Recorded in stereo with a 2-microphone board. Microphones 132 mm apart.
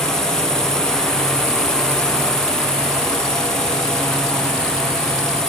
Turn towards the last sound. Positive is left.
turn(degrees=5)  # may be behind; listen again after turning